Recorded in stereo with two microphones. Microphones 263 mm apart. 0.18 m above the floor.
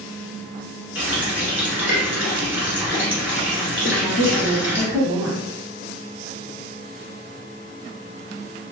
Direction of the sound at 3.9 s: 15° right (ahead or behind).